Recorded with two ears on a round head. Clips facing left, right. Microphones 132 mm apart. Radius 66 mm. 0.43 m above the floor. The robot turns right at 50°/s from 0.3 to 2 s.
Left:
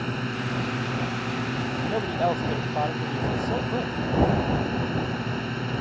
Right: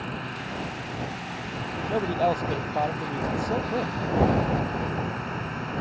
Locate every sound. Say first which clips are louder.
0.0 s a drone: left 5 dB; 55° left; by 5.8 s 140° left
1.9 s a man speaking: right 2 dB; centre (ahead or behind); by 3.9 s 10° right (ahead or behind)